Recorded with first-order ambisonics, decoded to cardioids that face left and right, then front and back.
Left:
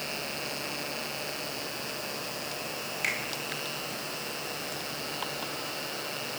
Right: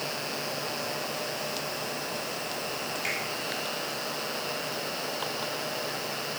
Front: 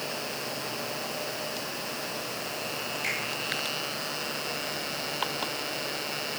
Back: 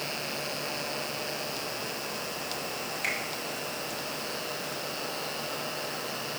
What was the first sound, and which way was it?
A finger snap, 105° left.